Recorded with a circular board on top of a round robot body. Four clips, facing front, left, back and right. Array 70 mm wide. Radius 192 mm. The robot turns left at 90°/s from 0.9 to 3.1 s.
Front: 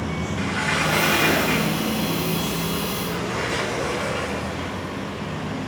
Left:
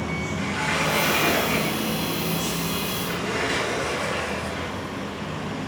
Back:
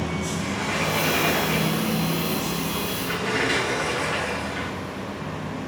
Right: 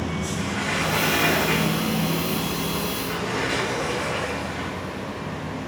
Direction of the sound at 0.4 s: 15° left.